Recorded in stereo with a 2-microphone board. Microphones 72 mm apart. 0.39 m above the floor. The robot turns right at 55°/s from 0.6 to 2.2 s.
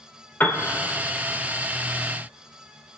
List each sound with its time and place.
0.4 s a piano: 30° left (ahead or behind), 1.3 m